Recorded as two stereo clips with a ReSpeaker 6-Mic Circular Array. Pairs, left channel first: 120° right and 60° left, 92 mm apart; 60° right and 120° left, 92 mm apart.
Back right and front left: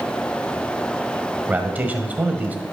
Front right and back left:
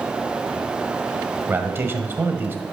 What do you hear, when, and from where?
1.5 s a man speaking: 105° left, 1.4 m